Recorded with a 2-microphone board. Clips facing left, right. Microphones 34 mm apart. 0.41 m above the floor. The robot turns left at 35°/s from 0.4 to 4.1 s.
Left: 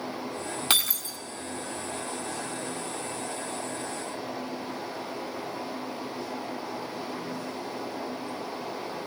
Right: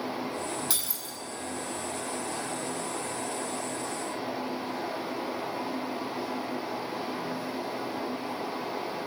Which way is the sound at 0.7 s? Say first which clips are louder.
Left 8 dB; 55° left (ahead or behind).